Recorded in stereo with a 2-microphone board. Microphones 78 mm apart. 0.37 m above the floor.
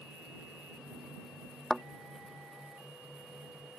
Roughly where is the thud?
Centre.